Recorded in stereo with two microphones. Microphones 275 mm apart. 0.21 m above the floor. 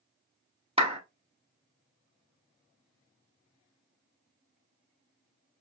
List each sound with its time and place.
0.8 s a clap: 20° right (ahead or behind), 0.9 m